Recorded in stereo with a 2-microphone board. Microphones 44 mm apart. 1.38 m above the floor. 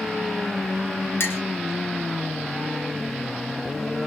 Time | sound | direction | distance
1.2 | a clink | 60° left (ahead or behind) | 0.6 m